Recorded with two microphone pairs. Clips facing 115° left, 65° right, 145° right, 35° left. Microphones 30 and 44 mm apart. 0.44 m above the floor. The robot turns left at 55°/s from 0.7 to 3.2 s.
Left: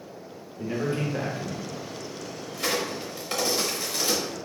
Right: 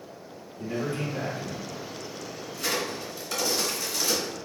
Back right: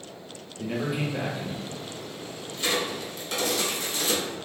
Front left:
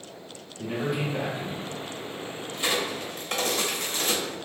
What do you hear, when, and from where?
0.6 s a man speaking: 140° left, 0.8 m; by 1.9 s 80° left, 0.8 m
2.5 s a crack: 110° left, 0.9 m; by 4.3 s 70° left, 0.9 m